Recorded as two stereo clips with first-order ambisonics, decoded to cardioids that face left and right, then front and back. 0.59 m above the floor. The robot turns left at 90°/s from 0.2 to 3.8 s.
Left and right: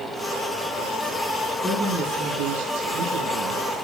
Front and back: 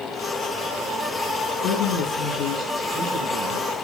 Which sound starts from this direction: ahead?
A woman speaking, at 1.6 s.